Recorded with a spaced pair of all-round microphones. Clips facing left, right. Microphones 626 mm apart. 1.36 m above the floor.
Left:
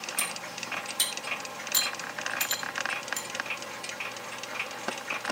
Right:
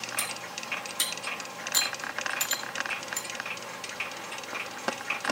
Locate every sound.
0.2 s cutlery clinking: 20° left (ahead or behind), 1.9 m